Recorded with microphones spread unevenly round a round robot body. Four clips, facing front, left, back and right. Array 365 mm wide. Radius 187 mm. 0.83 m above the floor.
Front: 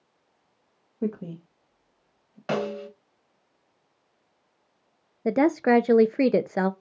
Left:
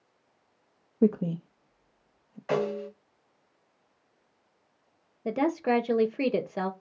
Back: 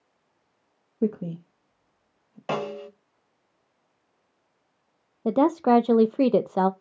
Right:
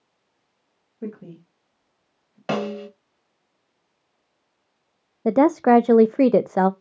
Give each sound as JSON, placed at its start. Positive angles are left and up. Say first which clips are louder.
{"t": 1.0, "sound": "a woman speaking", "louder": "left 10 dB, back 4 dB", "azimuth_deg": 115, "distance_m": 1.3}
{"t": 2.5, "sound": "a snare drum", "louder": "right 2 dB, front 1 dB", "azimuth_deg": -95, "distance_m": 3.5}
{"t": 5.2, "sound": "a woman speaking", "louder": "right 10 dB, back 1 dB", "azimuth_deg": -100, "distance_m": 0.7}